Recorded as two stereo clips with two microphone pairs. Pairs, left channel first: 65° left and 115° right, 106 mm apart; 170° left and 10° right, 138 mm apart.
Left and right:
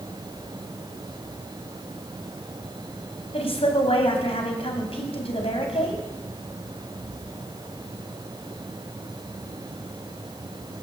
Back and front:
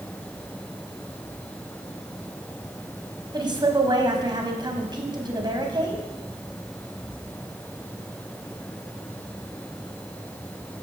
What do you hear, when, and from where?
3.3 s a woman speaking: 45° left, 3 m